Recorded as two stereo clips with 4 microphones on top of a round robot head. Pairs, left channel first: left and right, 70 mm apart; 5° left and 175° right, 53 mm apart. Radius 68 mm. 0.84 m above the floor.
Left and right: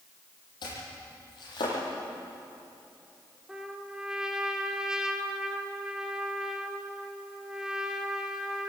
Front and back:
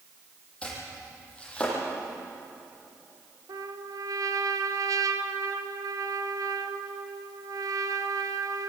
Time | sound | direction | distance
0.6 | chopping | 75° left | 9.5 m
3.5 | a trumpet | 175° right | 1.6 m